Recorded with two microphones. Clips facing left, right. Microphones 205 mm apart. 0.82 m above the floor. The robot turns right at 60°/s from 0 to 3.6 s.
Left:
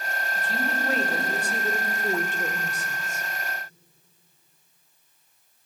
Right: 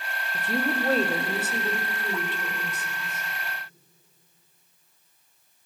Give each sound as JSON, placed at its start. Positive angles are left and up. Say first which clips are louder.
{"t": 0.3, "sound": "a woman speaking", "louder": "right 5 dB", "azimuth_deg": -70, "distance_m": 2.0}